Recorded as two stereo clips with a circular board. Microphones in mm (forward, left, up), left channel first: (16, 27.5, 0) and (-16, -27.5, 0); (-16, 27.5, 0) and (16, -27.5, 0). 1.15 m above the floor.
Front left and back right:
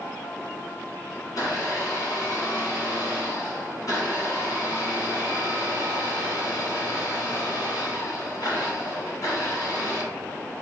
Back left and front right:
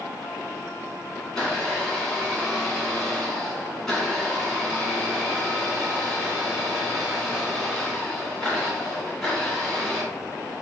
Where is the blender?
35° left, 2 m.